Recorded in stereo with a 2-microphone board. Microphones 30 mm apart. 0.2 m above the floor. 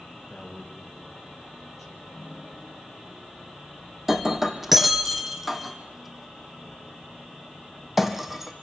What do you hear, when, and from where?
0.1 s a man speaking: 5° left (ahead or behind), 6.5 m; by 2.0 s 10° left (ahead or behind), 5.5 m
2.1 s a piano: 40° left (ahead or behind), 7 m
4.1 s breaking glass: 5° right (ahead or behind), 1.7 m